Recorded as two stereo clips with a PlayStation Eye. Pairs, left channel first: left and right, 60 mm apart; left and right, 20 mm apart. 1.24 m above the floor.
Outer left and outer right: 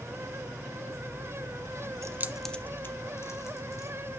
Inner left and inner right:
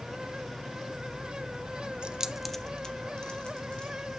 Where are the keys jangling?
55° right (ahead or behind), 0.5 m; by 3.9 s 55° left (ahead or behind), 2 m.